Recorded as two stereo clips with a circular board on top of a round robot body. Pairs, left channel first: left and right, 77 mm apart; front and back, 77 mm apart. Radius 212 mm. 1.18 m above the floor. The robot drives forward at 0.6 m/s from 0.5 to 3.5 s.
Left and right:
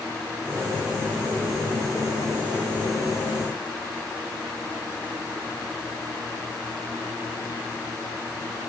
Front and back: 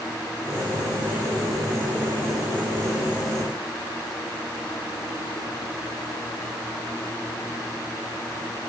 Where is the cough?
No cough in this recording.